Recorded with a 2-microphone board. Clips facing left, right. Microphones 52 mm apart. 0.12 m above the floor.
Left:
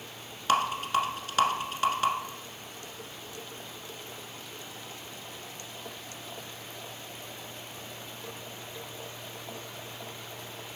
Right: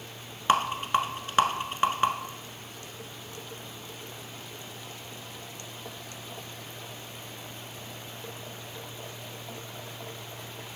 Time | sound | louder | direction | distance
0.5 | a rattle | right 1 dB | 30° right (ahead or behind) | 0.8 m